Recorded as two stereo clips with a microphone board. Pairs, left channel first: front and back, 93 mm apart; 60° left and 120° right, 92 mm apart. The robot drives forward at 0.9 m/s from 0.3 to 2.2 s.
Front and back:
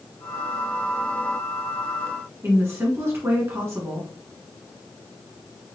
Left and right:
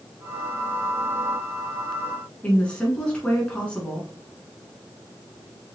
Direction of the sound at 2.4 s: 135° left.